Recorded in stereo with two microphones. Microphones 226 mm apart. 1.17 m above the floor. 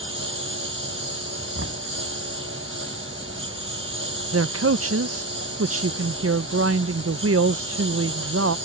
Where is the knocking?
70° right (ahead or behind).